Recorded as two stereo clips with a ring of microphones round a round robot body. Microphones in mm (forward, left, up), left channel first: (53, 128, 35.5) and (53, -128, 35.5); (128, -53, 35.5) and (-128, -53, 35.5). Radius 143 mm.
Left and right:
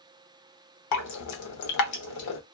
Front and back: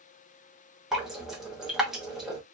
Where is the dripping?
90° left, 0.8 m.